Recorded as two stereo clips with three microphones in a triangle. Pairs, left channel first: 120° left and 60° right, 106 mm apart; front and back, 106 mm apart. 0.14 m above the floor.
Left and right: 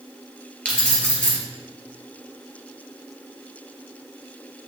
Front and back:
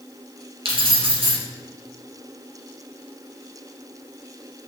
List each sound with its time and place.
0.7 s keys jangling: 165° right, 2 m